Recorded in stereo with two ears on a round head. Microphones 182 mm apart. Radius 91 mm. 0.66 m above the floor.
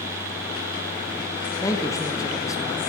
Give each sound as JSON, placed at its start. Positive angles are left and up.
{"t": 1.6, "sound": "a man speaking", "side_deg": 15, "distance_m": 0.6}